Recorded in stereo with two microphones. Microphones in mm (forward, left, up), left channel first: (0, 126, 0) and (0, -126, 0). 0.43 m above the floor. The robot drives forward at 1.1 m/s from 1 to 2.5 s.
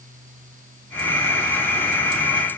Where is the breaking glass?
No breaking glass in this recording.